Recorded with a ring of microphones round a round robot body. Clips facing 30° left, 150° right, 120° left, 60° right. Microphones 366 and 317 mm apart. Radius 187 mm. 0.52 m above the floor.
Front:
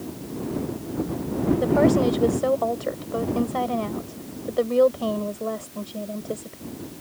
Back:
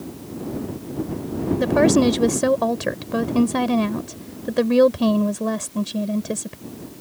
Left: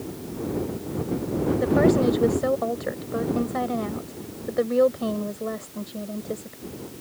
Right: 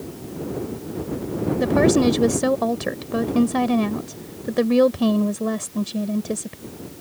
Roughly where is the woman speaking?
Right.